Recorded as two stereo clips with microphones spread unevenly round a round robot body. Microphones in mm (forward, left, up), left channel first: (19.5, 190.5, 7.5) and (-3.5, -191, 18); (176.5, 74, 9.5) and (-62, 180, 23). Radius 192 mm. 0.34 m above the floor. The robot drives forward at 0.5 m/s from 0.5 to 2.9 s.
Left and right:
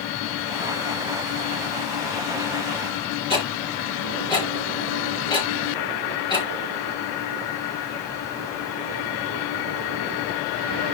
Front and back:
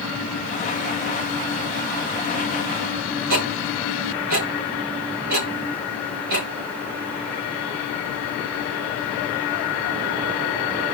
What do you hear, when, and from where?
3.3 s ticking: 165° left, 5 m